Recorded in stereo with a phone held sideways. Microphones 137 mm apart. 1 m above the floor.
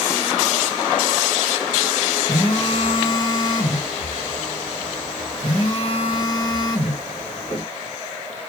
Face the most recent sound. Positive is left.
turn(degrees=40)  # may be behind; listen again after turning